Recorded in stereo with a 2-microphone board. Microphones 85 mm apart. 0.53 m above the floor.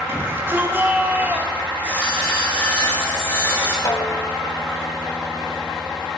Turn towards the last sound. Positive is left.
turn(degrees=45)  # may be behind; listen again after turning